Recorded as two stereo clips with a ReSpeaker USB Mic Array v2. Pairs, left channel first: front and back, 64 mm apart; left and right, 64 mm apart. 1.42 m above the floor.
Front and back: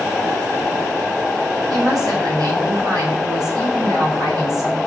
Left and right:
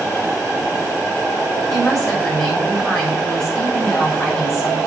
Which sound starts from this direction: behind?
A woman speaking, at 1.7 s.